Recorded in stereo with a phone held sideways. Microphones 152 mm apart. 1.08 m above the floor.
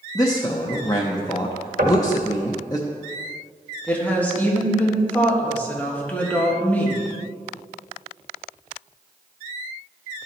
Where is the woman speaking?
10° left (ahead or behind), 1.4 m.